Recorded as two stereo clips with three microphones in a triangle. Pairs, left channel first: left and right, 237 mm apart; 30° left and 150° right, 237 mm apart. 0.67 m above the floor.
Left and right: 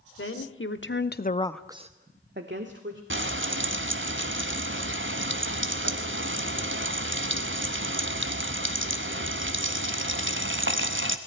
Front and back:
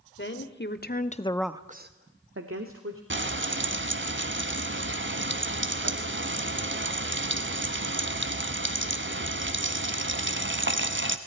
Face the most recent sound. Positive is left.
turn(degrees=-120)